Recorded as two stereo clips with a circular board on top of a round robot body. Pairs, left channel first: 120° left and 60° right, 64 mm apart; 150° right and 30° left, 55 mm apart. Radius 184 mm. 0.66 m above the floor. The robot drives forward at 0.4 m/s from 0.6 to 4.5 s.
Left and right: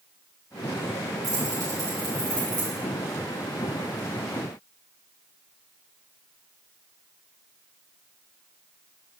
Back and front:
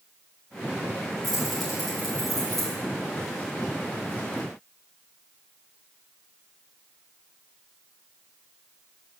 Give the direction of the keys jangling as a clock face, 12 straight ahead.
2 o'clock.